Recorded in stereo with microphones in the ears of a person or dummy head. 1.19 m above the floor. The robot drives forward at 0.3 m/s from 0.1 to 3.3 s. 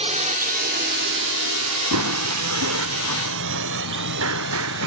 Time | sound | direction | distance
0.0 | a drone | 30° right (ahead or behind) | ?
1.9 | running footsteps | 75° right (ahead or behind) | ?